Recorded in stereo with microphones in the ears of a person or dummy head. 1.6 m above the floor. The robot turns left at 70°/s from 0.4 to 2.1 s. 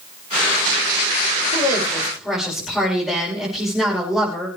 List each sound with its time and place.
1.5 s a woman speaking: 40° left, 6 m; by 4.5 s straight ahead, 6 m